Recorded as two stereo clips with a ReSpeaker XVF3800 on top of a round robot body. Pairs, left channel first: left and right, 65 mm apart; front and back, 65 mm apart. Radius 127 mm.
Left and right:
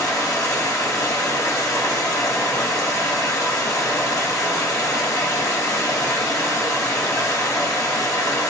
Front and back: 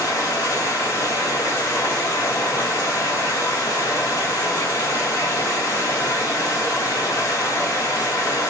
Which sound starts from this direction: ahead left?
Running water, at 0.0 s.